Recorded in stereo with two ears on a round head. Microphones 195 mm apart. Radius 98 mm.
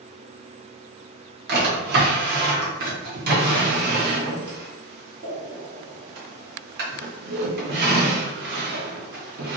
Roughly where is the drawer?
Right.